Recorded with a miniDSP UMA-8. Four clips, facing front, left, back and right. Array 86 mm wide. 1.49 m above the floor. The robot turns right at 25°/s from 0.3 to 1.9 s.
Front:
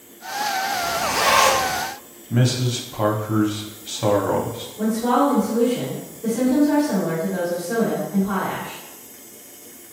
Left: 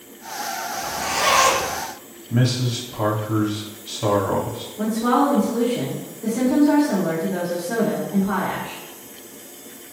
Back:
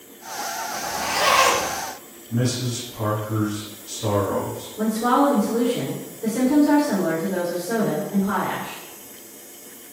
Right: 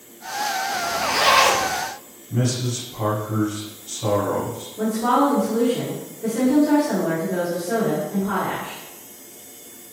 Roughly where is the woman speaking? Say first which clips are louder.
Even, even; behind right.